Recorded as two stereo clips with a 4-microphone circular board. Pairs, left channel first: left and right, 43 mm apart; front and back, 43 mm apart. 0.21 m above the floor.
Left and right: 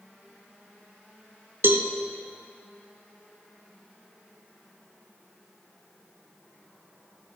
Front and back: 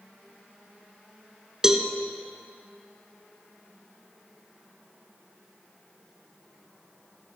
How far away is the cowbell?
About 1.2 m.